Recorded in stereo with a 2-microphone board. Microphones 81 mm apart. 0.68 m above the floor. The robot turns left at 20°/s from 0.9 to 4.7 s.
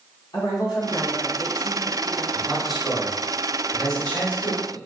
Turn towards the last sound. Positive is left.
turn(degrees=20)  # may be behind; listen again after turning